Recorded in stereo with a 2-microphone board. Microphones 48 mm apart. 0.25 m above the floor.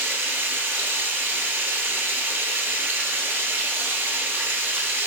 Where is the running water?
50° right (ahead or behind), 1.1 m.